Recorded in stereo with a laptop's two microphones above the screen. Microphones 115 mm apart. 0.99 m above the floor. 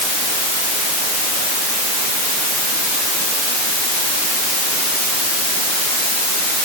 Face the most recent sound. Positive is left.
No sound to turn to.